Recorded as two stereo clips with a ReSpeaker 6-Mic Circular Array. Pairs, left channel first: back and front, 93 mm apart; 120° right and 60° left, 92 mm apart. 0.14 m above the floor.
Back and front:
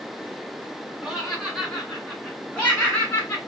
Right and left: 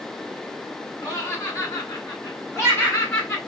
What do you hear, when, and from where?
1.0 s laughter: 80° right, 2.0 m; by 3.4 s 145° right, 1.8 m